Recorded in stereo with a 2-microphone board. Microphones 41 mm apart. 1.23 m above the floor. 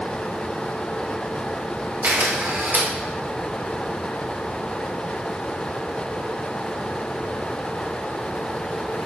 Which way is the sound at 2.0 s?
60° right (ahead or behind).